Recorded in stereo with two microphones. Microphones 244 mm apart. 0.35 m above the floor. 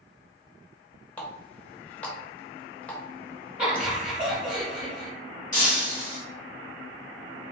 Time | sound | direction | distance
1.2 | a running tap | 5° left (ahead or behind) | 0.8 m
3.6 | laughter | 5° right (ahead or behind) | 1.8 m
5.5 | breaking glass | 30° left (ahead or behind) | 1.5 m